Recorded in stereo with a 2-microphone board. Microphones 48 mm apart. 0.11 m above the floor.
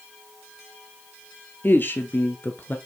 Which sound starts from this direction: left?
A woman speaking, at 1.6 s.